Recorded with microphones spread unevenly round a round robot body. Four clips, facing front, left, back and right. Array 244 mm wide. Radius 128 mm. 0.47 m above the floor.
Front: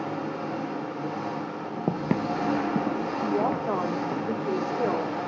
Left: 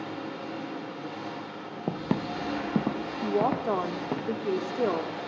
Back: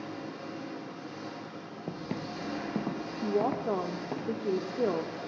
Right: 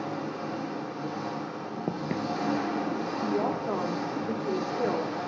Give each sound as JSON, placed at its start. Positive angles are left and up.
{"t": 0.0, "sound": "an engine running", "azimuth_deg": -15, "distance_m": 1.4}
{"t": 1.9, "sound": "footsteps", "azimuth_deg": 0, "distance_m": 0.5}
{"t": 3.2, "sound": "a woman speaking", "azimuth_deg": 95, "distance_m": 1.1}